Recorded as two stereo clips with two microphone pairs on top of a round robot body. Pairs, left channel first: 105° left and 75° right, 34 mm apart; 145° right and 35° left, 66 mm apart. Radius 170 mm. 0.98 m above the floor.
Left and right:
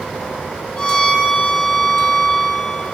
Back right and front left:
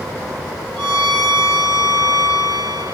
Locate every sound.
0.8 s a violin: 40° left, 3.5 m